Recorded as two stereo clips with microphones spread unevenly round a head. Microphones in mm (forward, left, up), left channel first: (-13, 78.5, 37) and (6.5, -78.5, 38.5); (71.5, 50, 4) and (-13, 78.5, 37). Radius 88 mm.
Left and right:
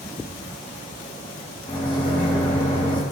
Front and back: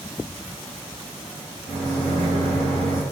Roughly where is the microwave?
Behind.